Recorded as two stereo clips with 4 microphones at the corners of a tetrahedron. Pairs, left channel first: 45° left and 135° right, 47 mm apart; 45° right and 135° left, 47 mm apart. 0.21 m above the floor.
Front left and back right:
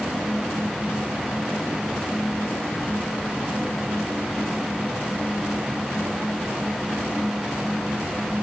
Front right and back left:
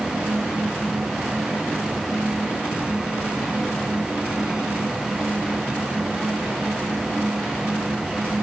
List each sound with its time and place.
Only background noise.